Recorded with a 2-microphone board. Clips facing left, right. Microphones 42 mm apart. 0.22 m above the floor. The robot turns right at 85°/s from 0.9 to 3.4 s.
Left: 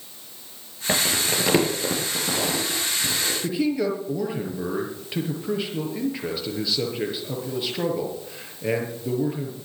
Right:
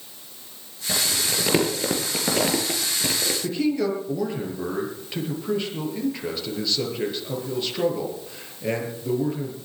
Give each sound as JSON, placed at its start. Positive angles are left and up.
{"t": 0.9, "sound": "crumpling", "side_deg": 55, "distance_m": 4.5}
{"t": 3.4, "sound": "a man speaking", "side_deg": 5, "distance_m": 5.5}